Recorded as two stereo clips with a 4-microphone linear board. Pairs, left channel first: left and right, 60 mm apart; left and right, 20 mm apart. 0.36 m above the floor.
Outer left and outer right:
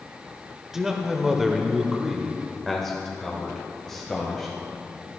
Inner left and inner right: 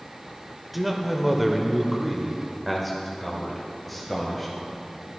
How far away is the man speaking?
About 1.1 m.